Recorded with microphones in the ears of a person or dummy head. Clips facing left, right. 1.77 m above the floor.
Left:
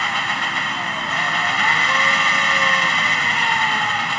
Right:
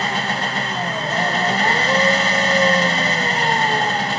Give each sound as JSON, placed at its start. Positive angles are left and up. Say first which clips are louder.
{"t": 0.0, "sound": "an engine running", "louder": "right 4 dB", "side_deg": -25}